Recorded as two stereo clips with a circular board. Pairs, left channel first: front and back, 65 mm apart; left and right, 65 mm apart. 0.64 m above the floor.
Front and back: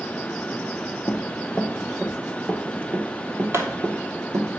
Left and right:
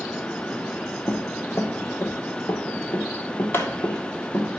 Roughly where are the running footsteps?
Ahead left.